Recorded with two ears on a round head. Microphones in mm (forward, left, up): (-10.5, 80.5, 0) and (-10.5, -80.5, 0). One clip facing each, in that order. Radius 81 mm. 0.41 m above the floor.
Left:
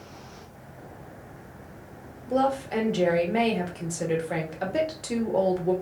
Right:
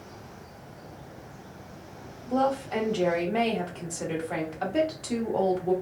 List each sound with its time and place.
2.3 s a woman speaking: 15° left (ahead or behind), 0.8 m